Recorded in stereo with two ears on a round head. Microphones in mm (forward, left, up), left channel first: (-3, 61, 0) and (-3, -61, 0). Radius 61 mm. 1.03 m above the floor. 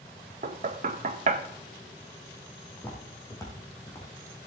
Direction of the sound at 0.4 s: 55° right (ahead or behind).